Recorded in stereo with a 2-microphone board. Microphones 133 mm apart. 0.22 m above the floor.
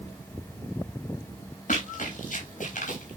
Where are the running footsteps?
80° left, 7.5 m.